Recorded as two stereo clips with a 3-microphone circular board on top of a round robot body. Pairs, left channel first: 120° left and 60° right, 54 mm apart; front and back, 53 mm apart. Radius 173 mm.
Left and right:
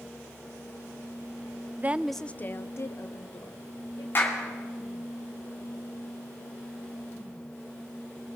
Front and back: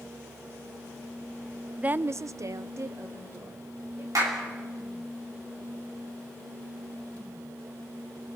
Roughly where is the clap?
Behind.